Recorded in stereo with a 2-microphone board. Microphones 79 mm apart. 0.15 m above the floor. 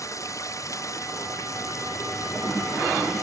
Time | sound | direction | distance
0.0 | running water | 45° left (ahead or behind) | ?